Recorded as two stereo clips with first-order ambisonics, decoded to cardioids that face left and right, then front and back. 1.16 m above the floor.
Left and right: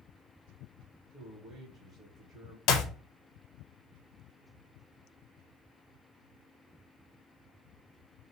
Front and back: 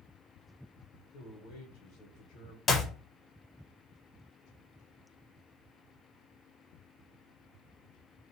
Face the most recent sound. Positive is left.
turn(degrees=70)